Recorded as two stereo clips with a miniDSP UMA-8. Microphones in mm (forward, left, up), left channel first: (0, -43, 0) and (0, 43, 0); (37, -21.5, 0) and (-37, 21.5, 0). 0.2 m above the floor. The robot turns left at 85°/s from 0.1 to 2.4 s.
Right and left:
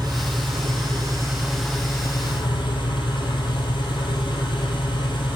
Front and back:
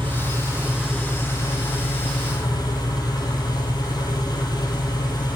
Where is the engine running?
125° left, 1.9 m; by 5.4 s 70° right, 1.9 m.